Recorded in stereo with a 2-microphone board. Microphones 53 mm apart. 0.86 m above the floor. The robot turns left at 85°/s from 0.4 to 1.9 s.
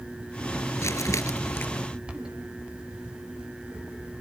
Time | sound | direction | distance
0.8 | crumpling | 115° left | ?